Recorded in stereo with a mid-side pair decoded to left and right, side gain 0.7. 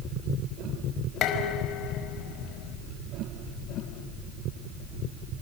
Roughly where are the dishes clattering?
Ahead left.